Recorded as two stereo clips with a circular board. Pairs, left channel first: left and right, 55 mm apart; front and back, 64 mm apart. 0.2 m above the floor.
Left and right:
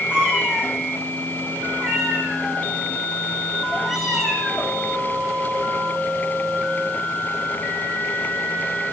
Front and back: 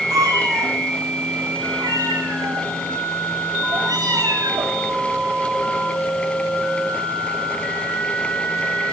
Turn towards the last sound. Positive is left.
turn(degrees=180)